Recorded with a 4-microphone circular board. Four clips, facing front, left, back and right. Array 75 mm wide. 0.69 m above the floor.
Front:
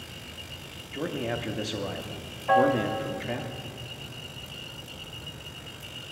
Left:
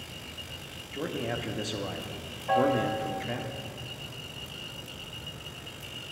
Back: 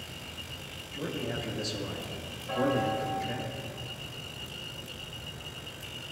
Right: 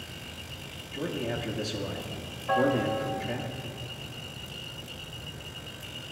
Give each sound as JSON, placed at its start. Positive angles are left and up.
{"t": 0.9, "sound": "a man speaking", "azimuth_deg": 25, "distance_m": 0.7}
{"t": 2.5, "sound": "a piano", "azimuth_deg": 10, "distance_m": 1.2}